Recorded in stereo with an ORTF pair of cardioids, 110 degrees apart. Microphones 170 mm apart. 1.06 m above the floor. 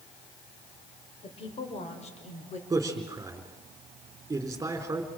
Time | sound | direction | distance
1.2 | a woman speaking | 35° left | 5 m
2.7 | a man speaking | 20° right | 3.5 m